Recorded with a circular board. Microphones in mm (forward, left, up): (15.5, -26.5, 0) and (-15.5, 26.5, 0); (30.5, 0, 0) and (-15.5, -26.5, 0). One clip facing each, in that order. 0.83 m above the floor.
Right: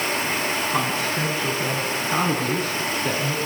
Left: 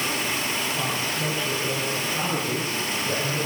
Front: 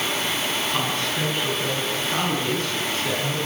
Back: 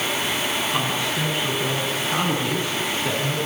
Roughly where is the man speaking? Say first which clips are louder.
Right 4 dB, back 1 dB; right.